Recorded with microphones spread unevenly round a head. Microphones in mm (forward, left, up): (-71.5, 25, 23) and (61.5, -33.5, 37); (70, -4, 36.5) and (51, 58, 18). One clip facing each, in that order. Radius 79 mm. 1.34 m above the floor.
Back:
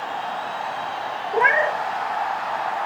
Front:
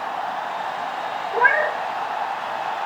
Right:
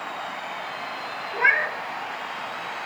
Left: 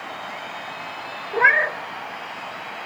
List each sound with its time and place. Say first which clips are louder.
1.3 s a cat meowing: back 1 dB, left 4 dB; 95° left, 0.5 m